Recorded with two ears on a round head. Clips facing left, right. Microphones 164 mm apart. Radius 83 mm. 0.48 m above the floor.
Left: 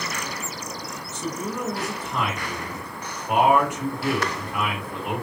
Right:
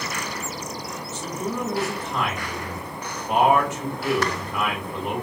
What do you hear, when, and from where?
1.1 s a man speaking: 15° left (ahead or behind), 1.5 m